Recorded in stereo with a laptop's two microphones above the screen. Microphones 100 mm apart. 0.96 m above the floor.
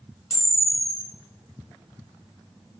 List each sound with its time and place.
0.3 s a camera shutter: 60° right (ahead or behind), 1.1 m